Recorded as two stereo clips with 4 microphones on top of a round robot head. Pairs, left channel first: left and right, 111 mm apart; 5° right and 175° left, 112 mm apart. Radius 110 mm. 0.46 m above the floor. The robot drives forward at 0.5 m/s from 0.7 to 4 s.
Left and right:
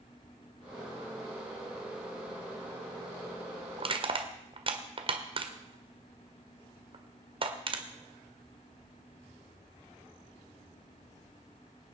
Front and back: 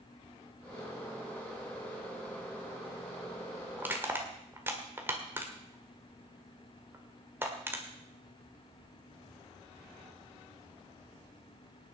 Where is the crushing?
115° right, 1.7 m; by 7.8 s 120° right, 1.8 m.